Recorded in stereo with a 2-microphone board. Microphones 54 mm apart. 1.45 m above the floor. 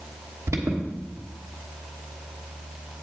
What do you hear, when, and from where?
0.5 s an alarm: 70° right (ahead or behind), 1.2 m